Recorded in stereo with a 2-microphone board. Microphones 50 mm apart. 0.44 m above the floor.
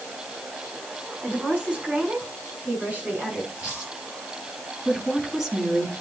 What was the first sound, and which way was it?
A woman speaking, 25° right (ahead or behind).